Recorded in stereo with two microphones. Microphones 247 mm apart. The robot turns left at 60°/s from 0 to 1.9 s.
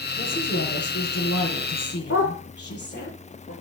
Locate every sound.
0.2 s a woman speaking: 155° left, 7.5 m; by 3.1 s 50° left, 7.5 m
2.1 s a dog barking: 65° left (ahead or behind), 4.5 m